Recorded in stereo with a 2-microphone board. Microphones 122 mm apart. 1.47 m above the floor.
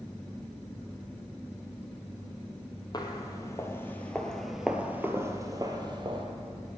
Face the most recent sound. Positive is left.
turn(degrees=-45)  # may be behind; listen again after turning